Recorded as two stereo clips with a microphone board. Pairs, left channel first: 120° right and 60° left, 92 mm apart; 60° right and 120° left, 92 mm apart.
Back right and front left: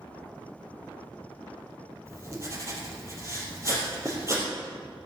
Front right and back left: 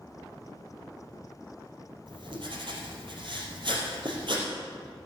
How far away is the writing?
About 3.5 m.